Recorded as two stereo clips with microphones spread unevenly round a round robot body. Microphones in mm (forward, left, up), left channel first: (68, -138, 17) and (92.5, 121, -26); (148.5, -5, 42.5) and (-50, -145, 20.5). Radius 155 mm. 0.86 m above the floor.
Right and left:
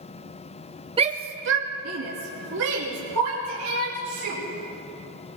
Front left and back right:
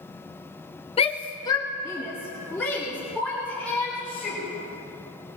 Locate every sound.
1.0 s a shout: 85° left, 0.5 m; by 4.4 s 120° left, 3.5 m